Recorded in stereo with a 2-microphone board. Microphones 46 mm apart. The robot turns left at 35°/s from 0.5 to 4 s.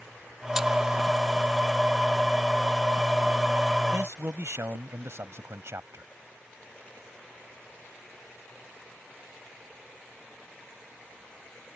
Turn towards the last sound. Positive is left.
turn(degrees=-65)  # may be behind; listen again after turning